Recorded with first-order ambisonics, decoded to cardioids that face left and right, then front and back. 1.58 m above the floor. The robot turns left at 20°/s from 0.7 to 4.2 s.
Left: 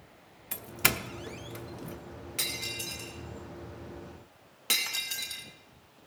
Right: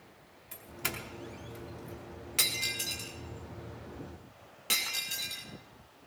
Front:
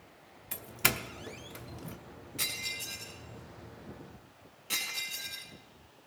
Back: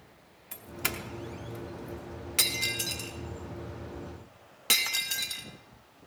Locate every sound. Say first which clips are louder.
0.5 s a doorbell: left 9 dB, front 4 dB; 65° left, 0.7 m; by 2.0 s 40° left, 0.7 m
2.4 s breaking glass: right 3 dB, back 7 dB; 160° right, 2 m; by 5.5 s 165° left, 2 m